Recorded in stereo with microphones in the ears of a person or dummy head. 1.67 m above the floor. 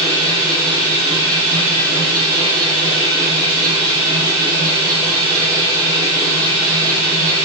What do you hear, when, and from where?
0.0 s a machine running: 20° right (ahead or behind), 1.1 m